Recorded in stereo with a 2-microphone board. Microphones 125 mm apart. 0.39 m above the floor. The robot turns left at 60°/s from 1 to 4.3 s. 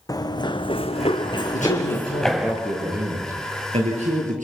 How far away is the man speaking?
About 7 m.